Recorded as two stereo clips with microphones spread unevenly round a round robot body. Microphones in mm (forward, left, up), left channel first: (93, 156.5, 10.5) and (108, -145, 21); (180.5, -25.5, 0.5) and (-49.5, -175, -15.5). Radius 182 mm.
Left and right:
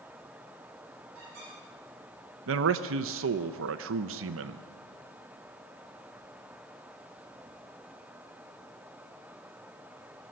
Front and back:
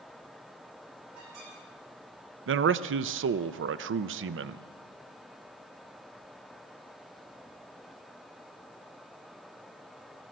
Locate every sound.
1.1 s a squeak: 140° right, 8.5 m
2.5 s a man speaking: 125° right, 0.5 m